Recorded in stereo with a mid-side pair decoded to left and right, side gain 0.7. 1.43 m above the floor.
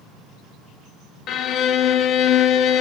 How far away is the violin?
About 0.7 m.